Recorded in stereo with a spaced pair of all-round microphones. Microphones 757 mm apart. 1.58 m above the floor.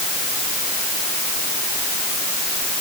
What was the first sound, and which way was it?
Only background noise.